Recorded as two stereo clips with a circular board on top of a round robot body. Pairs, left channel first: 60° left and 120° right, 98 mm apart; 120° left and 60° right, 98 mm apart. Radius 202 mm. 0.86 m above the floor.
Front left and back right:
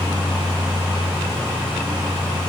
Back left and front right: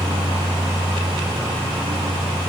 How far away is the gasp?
I don't hear a gasp.